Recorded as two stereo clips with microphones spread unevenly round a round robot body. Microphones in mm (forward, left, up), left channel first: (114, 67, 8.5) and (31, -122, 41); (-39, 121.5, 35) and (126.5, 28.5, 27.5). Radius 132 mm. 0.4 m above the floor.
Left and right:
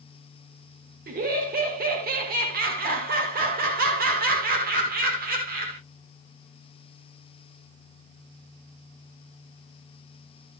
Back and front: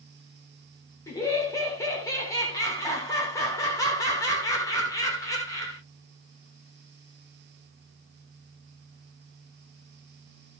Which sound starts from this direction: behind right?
Laughter, at 1.1 s.